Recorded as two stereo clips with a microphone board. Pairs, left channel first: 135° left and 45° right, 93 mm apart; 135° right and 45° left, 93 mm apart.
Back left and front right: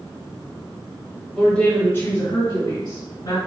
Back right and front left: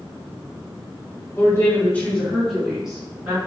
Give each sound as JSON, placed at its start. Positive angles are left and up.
{"t": 1.4, "sound": "a woman speaking", "azimuth_deg": -140, "distance_m": 1.4}